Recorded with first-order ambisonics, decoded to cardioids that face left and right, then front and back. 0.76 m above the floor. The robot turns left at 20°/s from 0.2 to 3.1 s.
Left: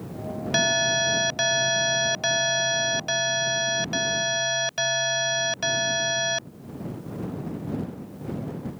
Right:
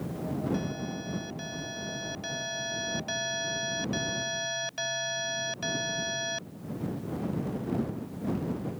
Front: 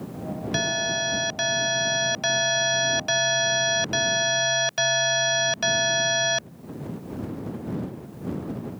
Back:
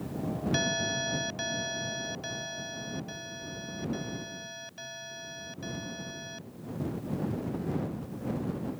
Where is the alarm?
80° left; by 6.5 s 25° left.